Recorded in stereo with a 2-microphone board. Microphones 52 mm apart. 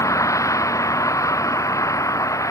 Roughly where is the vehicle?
Left.